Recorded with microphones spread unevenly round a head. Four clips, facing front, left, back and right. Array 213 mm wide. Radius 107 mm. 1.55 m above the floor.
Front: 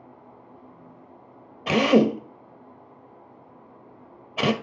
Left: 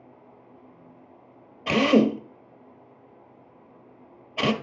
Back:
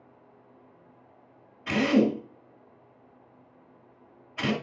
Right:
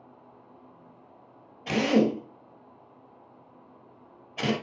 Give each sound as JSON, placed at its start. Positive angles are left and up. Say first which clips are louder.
{"t": 1.7, "sound": "a drill", "louder": "left 4 dB, front 4 dB", "azimuth_deg": 15, "distance_m": 1.4}